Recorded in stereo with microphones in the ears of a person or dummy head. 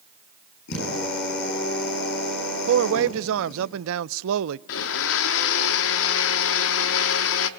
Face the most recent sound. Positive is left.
turn(degrees=65)  # may be behind; listen again after turning